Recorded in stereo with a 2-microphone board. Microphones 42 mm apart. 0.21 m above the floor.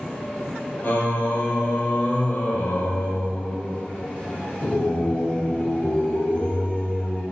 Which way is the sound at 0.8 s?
50° left (ahead or behind).